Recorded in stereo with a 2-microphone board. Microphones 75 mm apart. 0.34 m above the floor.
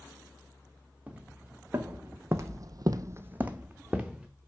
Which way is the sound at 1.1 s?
20° right (ahead or behind).